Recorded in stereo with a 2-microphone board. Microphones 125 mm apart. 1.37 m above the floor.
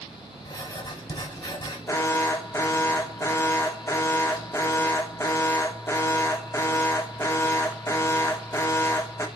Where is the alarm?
20° left (ahead or behind), 1.3 m.